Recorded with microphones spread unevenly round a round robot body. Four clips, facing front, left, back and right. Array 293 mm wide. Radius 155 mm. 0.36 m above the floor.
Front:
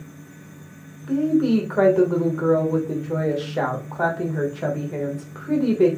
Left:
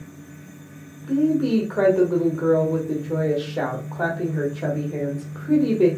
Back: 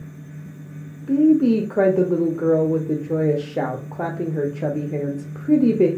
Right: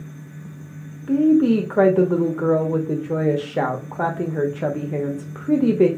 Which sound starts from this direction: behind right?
A woman speaking, at 1.1 s.